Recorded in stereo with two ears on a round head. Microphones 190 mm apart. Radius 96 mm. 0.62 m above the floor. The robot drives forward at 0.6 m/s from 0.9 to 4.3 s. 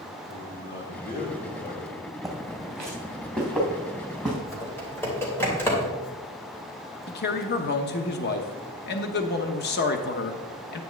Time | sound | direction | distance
0.3 | a man speaking | 45° left (ahead or behind) | 4 m
2.2 | footsteps | centre (ahead or behind) | 2.5 m
4.5 | typing on a keyboard | 10° left (ahead or behind) | 3 m
7.1 | a man speaking | 45° left (ahead or behind) | 0.9 m